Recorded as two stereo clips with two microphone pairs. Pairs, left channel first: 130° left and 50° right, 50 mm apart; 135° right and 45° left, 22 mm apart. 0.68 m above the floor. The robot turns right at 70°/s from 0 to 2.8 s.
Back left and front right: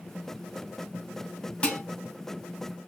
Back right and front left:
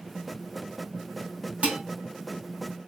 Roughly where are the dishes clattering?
Ahead left.